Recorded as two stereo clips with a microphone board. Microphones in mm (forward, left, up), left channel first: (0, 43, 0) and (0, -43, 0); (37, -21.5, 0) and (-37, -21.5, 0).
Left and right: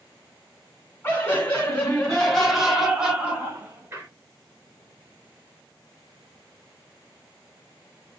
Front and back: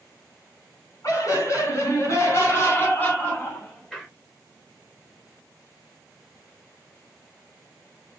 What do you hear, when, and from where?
1.0 s laughter: 25° left, 2 m; by 4.1 s 80° right, 1.5 m